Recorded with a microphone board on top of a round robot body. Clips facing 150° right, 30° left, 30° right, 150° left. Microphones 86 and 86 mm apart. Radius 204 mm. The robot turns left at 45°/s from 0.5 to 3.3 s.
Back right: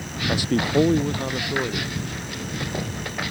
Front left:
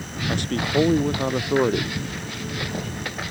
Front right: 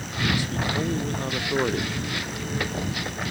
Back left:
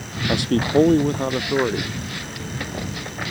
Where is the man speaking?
130° left; by 2.0 s 60° left.